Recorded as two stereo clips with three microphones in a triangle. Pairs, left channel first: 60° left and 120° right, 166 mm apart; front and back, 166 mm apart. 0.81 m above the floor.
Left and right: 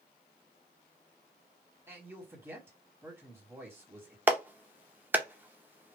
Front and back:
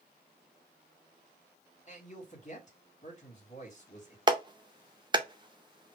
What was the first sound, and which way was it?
A man speaking, 45° right.